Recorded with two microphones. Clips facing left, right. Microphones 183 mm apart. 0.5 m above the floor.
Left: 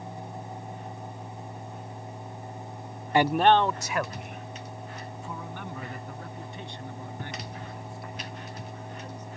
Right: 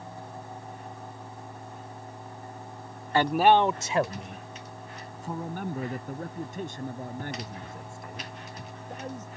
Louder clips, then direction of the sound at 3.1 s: Even; 20° left (ahead or behind).